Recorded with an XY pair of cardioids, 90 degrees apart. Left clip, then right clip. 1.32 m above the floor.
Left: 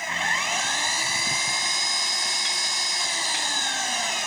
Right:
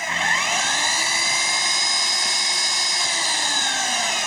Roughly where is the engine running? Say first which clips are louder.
Right 4 dB; ahead right.